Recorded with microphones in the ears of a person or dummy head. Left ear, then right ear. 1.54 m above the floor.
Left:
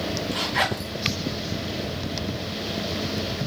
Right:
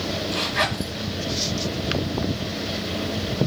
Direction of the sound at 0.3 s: 25° left (ahead or behind).